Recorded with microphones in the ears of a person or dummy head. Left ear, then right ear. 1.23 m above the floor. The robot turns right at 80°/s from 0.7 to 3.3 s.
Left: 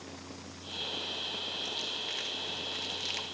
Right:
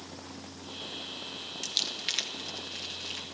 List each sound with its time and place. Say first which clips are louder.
1.6 s crumpling: right 4 dB; 80° right, 3 m; by 3.2 s 40° left (ahead or behind), 3 m